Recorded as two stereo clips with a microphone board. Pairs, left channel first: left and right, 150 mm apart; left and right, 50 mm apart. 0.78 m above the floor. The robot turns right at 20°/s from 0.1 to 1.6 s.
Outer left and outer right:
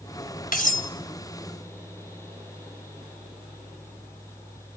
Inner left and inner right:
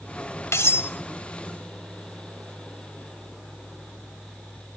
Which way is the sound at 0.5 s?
70° left (ahead or behind).